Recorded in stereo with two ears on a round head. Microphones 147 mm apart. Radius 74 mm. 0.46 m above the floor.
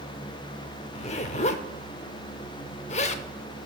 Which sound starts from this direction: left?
A zipper, at 0.9 s.